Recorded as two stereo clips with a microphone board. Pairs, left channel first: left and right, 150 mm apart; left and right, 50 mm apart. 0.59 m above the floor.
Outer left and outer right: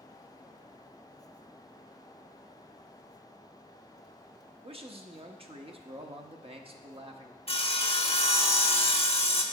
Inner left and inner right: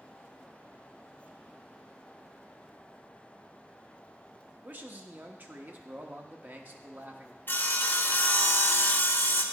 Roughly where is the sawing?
Left.